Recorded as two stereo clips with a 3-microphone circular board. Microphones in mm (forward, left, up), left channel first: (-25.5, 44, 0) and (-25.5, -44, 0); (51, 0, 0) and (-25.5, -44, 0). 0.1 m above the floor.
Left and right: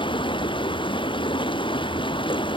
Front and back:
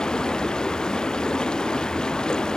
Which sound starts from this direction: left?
Running water, at 0.0 s.